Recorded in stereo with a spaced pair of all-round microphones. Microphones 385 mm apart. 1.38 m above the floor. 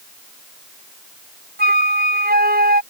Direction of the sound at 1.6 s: 25° right (ahead or behind).